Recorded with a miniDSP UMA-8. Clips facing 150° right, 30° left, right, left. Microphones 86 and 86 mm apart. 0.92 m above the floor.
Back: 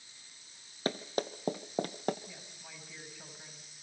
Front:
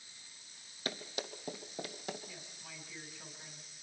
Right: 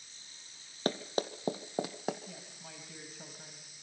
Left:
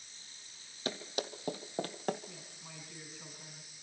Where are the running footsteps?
110° right, 1.4 m; by 2.2 s 175° right, 1.5 m.